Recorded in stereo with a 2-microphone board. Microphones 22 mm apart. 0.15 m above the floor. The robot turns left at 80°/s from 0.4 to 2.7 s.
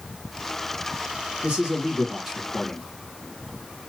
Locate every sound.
1.4 s a man speaking: 110° right, 3.5 m; by 2.8 s 150° left, 3.5 m